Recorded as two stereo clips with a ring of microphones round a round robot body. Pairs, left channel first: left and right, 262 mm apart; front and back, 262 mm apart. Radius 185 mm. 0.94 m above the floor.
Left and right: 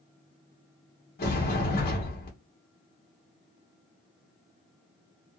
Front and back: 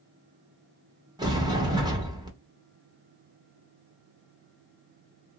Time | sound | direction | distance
1.2 | a sliding door | 115° left | 0.8 m